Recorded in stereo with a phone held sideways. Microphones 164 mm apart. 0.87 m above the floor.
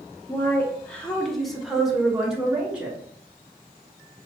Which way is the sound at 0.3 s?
15° left (ahead or behind).